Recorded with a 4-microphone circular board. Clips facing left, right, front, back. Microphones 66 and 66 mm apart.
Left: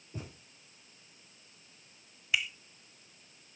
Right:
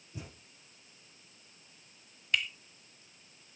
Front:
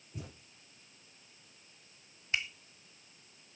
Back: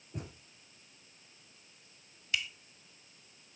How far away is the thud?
About 8 m.